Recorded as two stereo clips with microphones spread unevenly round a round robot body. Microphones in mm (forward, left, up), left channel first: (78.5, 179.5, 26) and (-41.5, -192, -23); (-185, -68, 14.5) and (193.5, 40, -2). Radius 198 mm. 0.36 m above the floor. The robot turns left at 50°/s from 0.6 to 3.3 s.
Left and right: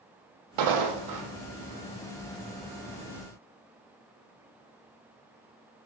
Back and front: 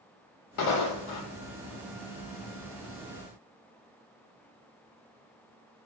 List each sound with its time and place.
0.6 s footsteps: 125° right, 0.5 m; by 1.3 s 160° right, 0.5 m